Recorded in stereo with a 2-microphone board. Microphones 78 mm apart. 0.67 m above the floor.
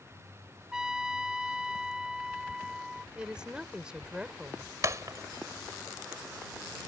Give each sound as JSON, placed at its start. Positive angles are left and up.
{"t": 0.7, "sound": "a trumpet", "side_deg": -10}
{"t": 3.1, "sound": "a woman speaking", "side_deg": -10}
{"t": 4.8, "sound": "breaking glass", "side_deg": -45}